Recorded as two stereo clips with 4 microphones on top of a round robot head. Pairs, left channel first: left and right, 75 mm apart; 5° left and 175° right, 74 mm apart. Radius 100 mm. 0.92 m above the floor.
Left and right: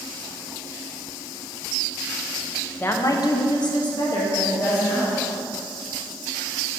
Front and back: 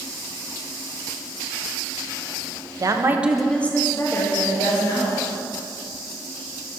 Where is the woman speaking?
155° left, 0.8 m; by 5.3 s 45° left, 2.5 m.